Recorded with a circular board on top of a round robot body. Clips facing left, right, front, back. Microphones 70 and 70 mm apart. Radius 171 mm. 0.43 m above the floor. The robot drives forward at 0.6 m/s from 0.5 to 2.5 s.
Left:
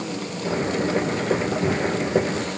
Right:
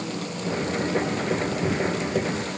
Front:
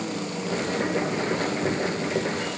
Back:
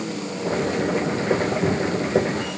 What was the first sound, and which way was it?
Only background noise.